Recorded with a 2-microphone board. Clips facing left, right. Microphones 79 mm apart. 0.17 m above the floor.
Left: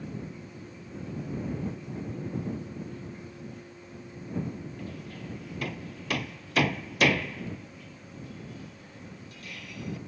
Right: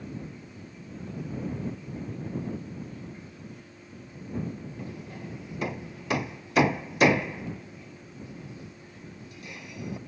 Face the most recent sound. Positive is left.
turn(degrees=-20)  # may be behind; listen again after turning